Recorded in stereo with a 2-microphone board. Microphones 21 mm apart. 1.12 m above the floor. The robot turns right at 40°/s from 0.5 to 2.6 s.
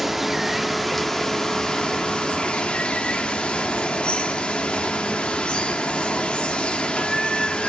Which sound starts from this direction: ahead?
Running water, at 0.0 s.